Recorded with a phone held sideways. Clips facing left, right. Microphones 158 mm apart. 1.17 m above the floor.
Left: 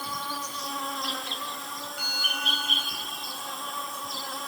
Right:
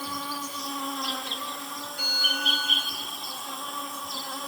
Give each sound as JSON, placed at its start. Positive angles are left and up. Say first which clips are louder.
{"t": 0.0, "sound": "an insect", "louder": "right 1 dB", "side_deg": -5, "distance_m": 1.8}
{"t": 2.0, "sound": "a bell", "louder": "right 4 dB", "side_deg": -40, "distance_m": 3.5}